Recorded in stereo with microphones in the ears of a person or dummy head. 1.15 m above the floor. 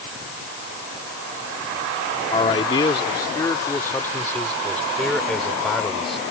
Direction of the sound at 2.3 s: 35° left (ahead or behind).